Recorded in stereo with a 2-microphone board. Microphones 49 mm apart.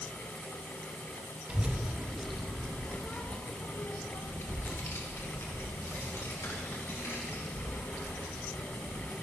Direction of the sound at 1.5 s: 25° right (ahead or behind).